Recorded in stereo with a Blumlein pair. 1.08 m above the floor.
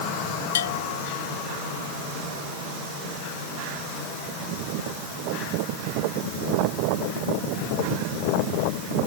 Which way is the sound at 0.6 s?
60° left.